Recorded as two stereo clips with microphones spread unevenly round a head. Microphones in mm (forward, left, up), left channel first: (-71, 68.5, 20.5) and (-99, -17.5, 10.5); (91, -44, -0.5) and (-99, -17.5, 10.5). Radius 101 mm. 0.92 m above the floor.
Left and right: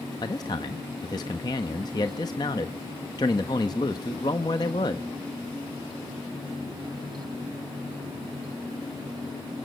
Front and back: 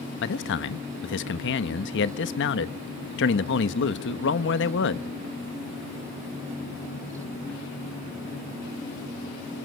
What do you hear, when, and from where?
0.2 s a man speaking: 10° left, 1.0 m